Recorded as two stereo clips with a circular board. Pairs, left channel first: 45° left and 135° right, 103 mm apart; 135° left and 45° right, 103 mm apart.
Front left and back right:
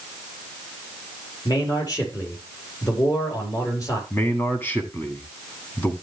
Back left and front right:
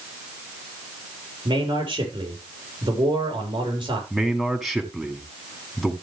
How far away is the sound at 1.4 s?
About 5 m.